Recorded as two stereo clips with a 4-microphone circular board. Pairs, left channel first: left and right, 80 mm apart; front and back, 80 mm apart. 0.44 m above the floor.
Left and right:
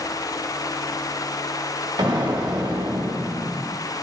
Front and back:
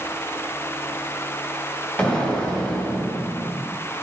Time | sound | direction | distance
2.0 | an explosion | 75° right | 1.9 m